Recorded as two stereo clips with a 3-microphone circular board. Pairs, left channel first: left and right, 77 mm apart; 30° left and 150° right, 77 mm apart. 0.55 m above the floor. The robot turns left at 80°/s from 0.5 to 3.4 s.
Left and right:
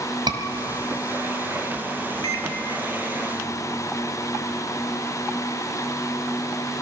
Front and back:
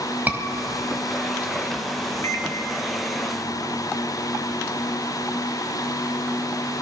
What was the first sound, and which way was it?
A scream, 85° right.